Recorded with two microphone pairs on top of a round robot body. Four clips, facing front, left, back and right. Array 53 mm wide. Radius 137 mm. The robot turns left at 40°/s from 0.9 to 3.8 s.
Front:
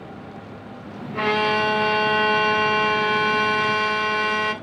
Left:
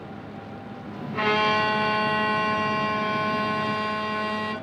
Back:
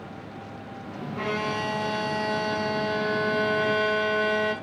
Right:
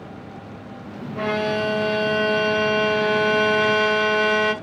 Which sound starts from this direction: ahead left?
A violin, at 1.1 s.